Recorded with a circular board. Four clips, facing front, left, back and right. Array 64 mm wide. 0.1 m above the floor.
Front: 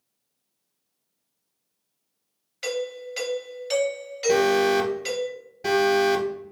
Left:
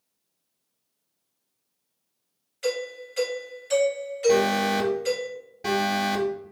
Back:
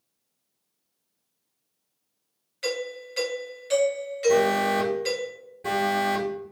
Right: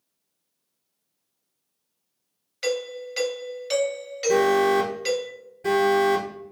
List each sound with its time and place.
2.6 s a doorbell: 70° right, 2 m
4.3 s an alarm: 45° left, 1.6 m